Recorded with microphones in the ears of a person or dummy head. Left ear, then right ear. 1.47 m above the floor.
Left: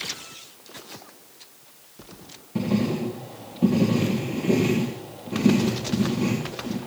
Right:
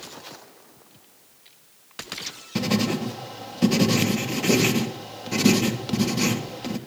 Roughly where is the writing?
Right.